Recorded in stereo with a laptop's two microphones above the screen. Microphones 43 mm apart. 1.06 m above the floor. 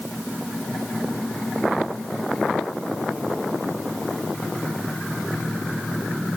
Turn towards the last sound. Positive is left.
No sound to turn to.